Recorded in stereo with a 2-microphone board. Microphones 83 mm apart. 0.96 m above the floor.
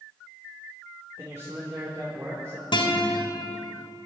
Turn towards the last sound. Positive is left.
turn(degrees=75)  # may be behind; listen again after turning